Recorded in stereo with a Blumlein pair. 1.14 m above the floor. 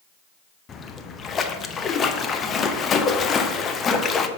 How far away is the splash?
About 0.5 m.